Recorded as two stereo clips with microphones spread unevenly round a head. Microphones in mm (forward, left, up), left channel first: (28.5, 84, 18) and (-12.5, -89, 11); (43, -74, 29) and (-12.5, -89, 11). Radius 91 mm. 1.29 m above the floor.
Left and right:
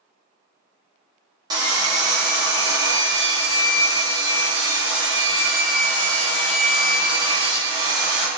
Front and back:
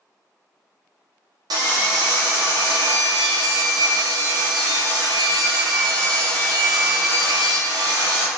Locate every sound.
1.5 s sawing: 175° right, 1.9 m